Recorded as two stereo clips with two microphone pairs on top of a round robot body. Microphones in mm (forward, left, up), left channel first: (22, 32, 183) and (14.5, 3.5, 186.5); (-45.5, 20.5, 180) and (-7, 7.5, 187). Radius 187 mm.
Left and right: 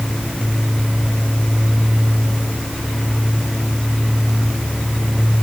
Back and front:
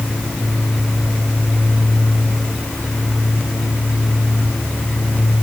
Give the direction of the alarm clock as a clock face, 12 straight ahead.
I don't hear an alarm clock.